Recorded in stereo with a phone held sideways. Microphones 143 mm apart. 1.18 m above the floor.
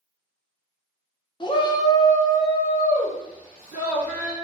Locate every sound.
1.4 s a shout: 35° left (ahead or behind), 0.5 m; by 4.3 s 10° left (ahead or behind), 2 m